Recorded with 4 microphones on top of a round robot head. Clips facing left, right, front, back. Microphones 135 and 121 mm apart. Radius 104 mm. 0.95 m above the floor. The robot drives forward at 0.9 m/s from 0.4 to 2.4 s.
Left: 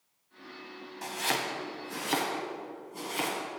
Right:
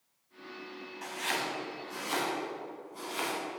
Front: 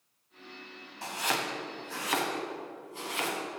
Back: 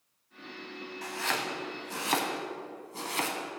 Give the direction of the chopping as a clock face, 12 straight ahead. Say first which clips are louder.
Left 3 dB, front 1 dB; 10 o'clock.